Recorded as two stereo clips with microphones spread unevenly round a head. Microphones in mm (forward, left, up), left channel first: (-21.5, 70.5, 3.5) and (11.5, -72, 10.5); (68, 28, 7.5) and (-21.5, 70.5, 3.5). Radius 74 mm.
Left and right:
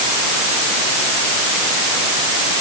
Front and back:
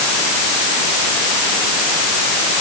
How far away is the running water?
No running water in this recording.